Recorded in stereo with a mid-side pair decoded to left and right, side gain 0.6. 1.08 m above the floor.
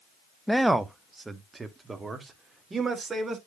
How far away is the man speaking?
About 0.9 m.